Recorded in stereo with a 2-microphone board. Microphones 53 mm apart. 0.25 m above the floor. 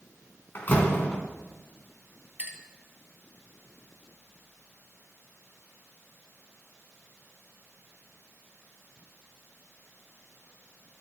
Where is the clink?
30° right (ahead or behind), 1.5 m.